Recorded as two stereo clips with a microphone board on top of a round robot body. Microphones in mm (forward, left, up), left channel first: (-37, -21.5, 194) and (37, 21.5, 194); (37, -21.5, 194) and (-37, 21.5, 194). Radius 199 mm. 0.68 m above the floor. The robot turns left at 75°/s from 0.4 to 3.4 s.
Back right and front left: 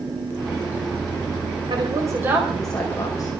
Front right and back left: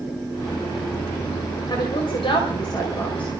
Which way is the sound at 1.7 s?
5° left.